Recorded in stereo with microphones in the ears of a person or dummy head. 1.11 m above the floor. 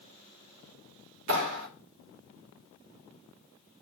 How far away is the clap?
About 2.5 m.